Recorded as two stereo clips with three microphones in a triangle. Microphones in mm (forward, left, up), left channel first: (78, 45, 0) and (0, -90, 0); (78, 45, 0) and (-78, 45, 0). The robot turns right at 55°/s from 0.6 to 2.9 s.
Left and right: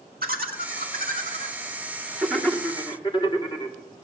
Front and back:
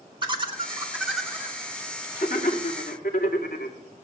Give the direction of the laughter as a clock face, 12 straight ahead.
4 o'clock.